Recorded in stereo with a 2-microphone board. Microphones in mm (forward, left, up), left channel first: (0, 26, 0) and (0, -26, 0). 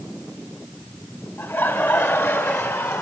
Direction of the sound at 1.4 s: 60° left (ahead or behind).